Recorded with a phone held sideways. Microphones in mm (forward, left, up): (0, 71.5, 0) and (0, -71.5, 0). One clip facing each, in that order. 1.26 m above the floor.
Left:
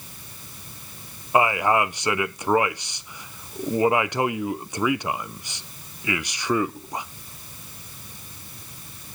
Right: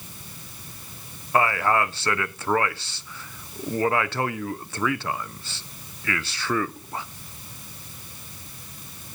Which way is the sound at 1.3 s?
15° left (ahead or behind).